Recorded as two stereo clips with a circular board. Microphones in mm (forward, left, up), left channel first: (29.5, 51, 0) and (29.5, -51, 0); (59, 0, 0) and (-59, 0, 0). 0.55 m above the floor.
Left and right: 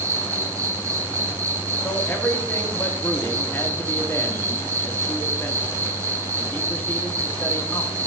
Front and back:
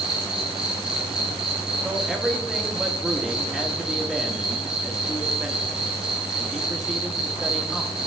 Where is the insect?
105° right, 0.8 m.